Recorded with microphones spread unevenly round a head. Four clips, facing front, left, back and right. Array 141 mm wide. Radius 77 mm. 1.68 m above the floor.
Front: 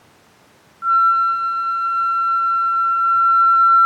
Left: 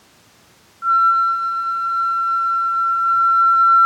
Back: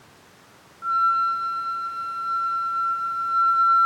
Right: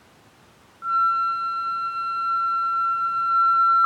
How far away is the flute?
About 1.1 m.